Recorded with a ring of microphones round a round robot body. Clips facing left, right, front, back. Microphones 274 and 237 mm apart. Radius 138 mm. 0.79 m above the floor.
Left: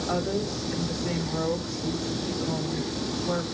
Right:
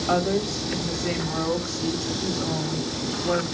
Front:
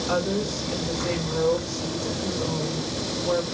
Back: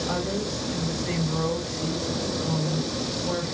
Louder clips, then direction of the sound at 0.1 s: Right 5 dB, front 6 dB; 110° right.